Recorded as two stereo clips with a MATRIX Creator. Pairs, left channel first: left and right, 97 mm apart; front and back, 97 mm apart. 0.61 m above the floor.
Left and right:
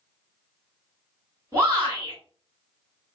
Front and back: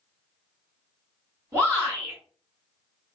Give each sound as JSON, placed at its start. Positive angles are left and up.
{"t": 1.5, "sound": "a shout", "azimuth_deg": -135, "distance_m": 1.6}